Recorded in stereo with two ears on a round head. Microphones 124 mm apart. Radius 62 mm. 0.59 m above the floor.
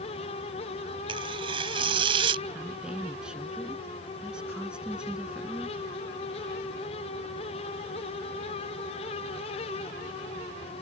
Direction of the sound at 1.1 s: 40° right (ahead or behind).